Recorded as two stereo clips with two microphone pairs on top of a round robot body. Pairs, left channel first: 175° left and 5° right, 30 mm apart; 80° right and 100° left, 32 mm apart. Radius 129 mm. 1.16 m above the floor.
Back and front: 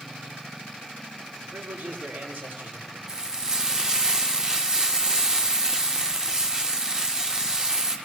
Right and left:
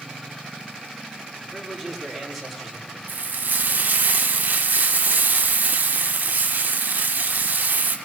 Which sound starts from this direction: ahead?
A man speaking, at 1.4 s.